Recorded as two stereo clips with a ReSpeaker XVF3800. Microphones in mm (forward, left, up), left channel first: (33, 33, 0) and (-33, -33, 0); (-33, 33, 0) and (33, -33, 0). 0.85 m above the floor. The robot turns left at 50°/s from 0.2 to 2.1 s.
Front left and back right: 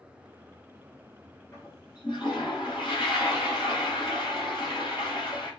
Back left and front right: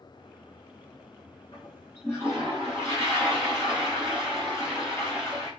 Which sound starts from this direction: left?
A toilet flushing, at 1.5 s.